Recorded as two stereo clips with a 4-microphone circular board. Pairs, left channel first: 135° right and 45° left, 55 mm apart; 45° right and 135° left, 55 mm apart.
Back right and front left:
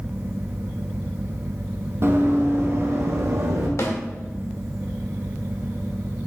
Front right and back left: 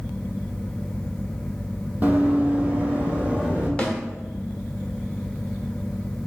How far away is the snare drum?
About 1.3 m.